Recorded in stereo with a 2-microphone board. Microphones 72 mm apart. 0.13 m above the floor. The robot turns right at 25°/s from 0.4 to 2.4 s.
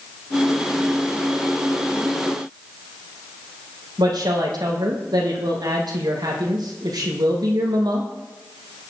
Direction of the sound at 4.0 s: 75° right (ahead or behind).